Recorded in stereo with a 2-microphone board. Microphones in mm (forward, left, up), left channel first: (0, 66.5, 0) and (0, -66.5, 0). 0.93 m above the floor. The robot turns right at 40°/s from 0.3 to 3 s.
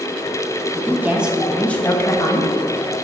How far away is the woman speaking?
About 0.9 m.